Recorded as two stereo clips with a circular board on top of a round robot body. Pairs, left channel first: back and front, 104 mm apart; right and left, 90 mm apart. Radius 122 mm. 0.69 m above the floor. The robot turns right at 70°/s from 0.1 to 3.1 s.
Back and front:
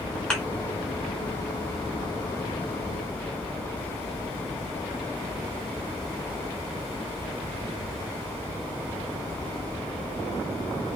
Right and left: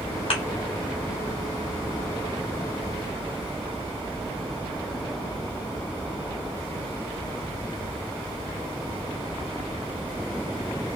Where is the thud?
100° right, 1.3 m; by 0.4 s 90° right, 1.3 m.